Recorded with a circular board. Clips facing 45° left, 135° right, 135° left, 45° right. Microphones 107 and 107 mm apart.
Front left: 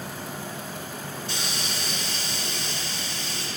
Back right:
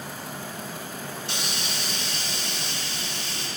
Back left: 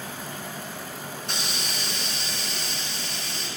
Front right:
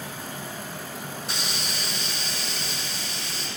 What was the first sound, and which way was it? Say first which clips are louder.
A hiss: front left 1 dB, back left 1 dB; 135° right.